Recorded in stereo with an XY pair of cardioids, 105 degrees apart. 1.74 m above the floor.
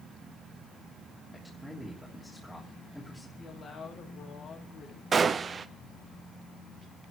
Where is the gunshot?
40° right, 0.8 m.